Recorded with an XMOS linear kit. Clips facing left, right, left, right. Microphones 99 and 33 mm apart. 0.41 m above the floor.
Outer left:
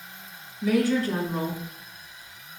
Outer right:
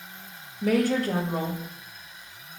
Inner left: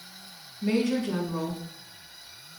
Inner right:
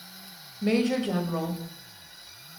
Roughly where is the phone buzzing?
No phone buzzing in this recording.